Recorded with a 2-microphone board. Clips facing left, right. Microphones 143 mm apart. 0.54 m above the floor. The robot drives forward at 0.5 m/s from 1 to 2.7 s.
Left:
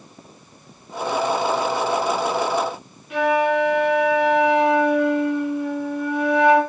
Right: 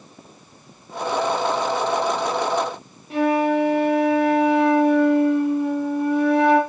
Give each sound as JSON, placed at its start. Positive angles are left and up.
{"t": 3.1, "sound": "a flute", "side_deg": -35, "distance_m": 4.0}